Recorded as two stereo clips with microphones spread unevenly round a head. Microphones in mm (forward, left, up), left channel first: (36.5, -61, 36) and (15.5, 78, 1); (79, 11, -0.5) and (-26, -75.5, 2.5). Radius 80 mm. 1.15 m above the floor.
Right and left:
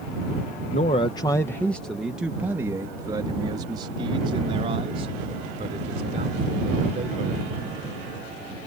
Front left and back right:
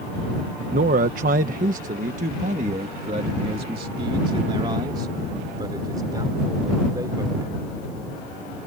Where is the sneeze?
I don't hear a sneeze.